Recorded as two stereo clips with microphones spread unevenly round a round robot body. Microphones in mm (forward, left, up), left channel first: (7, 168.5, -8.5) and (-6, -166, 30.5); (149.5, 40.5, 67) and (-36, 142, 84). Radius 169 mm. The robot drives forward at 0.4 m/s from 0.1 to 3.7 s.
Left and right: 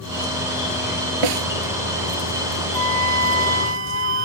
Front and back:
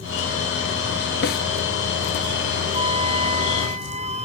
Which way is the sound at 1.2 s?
80° right.